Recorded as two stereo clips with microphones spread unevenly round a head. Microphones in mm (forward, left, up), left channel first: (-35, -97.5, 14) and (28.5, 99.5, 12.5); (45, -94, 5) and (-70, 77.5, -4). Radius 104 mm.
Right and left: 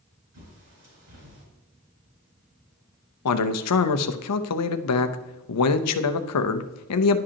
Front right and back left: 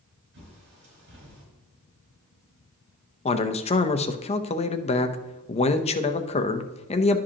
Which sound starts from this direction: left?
A bird, at 0.3 s.